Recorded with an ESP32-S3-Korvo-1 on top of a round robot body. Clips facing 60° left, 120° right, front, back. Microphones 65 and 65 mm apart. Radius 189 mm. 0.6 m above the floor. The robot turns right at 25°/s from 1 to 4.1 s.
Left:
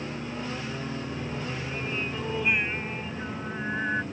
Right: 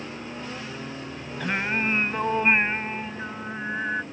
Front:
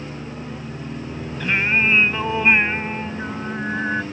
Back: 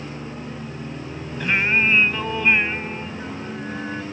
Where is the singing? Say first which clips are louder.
Right 7 dB, even; 95° right; by 4.0 s 30° right.